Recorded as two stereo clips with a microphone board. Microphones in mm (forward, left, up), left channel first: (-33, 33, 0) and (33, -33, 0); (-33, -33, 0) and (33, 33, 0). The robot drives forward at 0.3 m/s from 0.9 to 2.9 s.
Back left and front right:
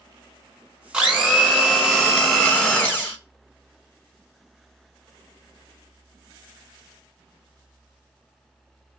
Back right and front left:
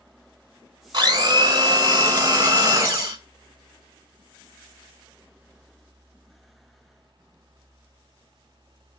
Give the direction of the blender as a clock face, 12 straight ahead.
11 o'clock.